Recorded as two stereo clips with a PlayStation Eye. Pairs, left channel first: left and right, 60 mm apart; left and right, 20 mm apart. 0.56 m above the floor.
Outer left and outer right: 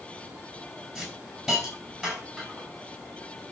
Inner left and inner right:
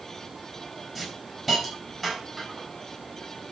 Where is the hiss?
5° right (ahead or behind), 5.5 m.